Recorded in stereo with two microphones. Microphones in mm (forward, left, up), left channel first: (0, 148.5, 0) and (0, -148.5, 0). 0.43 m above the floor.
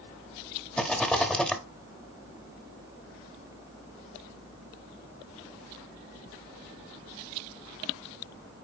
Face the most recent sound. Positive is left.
turn(degrees=5)  # may be behind; listen again after turning